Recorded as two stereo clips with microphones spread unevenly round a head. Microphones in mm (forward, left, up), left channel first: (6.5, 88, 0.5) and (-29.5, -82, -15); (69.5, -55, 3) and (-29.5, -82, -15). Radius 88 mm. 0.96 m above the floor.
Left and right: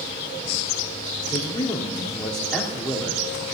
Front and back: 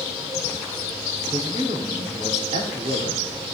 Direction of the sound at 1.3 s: 145° left.